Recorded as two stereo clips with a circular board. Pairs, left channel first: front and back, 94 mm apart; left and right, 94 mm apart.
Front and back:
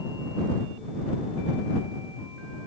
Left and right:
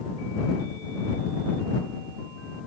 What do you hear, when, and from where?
Only background noise.